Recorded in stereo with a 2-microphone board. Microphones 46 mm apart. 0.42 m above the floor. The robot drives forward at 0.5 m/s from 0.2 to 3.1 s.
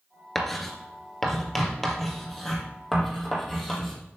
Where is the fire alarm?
I don't hear a fire alarm.